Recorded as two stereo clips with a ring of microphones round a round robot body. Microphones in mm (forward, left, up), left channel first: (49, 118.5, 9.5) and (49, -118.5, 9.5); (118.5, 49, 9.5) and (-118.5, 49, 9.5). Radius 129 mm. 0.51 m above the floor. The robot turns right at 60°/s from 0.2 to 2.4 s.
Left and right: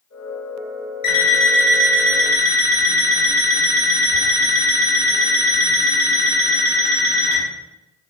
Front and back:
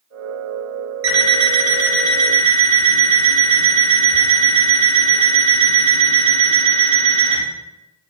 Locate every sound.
1.0 s an alarm clock: 160° left, 2.0 m; by 7.4 s 115° right, 2.0 m